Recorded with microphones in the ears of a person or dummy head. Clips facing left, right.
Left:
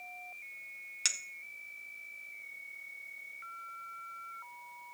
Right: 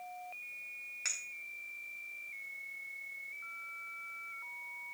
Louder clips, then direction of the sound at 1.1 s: Left 3 dB; 50° left (ahead or behind).